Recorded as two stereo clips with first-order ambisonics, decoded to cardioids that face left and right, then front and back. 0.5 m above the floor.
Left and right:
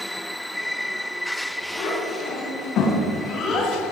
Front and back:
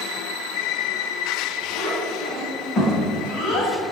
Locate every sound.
1.8 s a child speaking: 60° left, 2.5 m; by 3.7 s 35° left, 2 m